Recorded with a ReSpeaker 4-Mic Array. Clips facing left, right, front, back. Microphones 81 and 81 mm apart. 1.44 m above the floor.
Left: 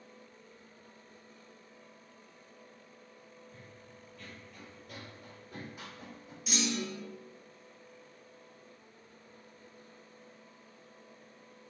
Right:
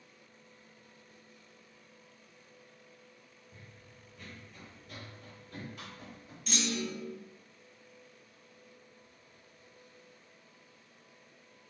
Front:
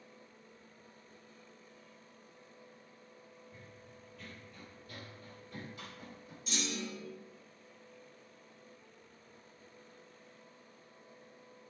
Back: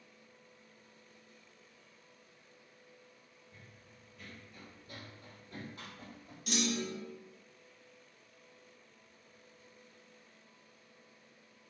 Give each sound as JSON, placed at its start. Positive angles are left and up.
{"t": 3.5, "sound": "running footsteps", "azimuth_deg": -60, "distance_m": 1.5}
{"t": 6.5, "sound": "a clunk", "azimuth_deg": 175, "distance_m": 0.7}